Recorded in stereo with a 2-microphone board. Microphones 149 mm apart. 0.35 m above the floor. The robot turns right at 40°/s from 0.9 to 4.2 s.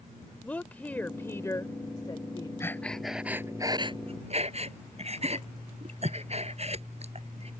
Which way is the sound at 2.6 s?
20° left (ahead or behind).